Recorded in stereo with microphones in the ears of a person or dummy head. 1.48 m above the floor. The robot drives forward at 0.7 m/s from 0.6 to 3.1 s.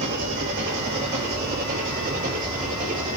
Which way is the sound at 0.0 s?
55° right (ahead or behind).